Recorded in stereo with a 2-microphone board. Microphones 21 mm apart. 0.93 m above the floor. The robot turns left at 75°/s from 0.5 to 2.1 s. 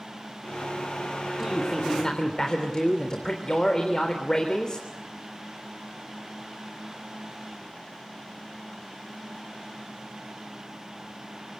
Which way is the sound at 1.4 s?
155° right.